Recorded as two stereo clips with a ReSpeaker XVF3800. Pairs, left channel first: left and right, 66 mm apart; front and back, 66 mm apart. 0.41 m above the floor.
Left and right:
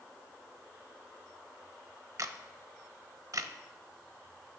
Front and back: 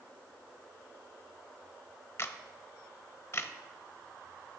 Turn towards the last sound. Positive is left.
turn(degrees=-55)